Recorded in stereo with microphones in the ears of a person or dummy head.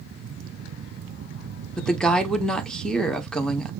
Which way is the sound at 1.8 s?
5° left (ahead or behind).